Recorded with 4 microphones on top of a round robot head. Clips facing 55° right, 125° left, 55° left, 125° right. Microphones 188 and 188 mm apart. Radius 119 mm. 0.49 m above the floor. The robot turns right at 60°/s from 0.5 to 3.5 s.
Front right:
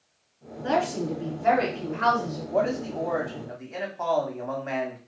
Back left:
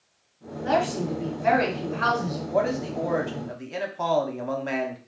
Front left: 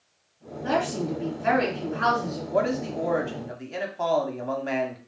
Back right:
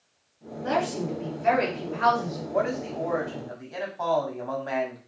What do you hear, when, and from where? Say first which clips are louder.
0.6 s a woman speaking: back left 1 dB, front left 1 dB; 5° left, 1.7 m; by 2.4 s 110° left, 1.7 m
2.5 s a man speaking: even, front left 2 dB; 40° left, 0.9 m; by 5.0 s 100° left, 0.9 m